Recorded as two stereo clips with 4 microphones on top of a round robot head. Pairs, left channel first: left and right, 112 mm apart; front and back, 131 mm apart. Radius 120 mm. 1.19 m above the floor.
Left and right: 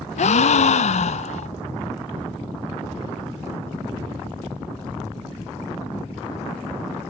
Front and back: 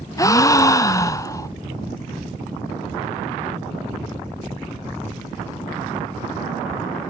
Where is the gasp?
70° left, 0.7 m.